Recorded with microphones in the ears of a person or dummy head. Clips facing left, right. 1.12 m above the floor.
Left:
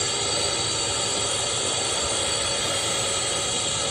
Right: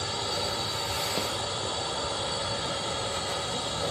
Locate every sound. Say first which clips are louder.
0.0 s a drone: left 4 dB; 35° left (ahead or behind)